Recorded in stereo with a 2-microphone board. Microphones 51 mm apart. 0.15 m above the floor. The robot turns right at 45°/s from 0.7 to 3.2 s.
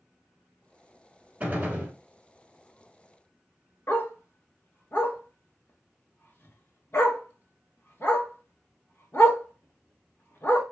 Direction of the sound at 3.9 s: 55° left (ahead or behind).